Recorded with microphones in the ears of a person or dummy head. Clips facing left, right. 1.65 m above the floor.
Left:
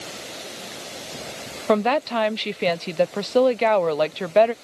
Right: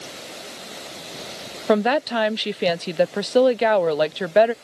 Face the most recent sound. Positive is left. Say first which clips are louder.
# right 1 dB
turn(degrees=-10)  # may be behind; listen again after turning